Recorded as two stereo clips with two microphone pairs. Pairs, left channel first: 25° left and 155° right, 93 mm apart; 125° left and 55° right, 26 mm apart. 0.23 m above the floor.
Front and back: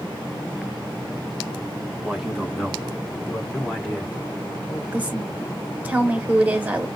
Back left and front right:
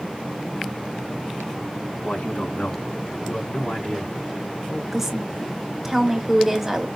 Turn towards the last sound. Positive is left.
turn(degrees=-110)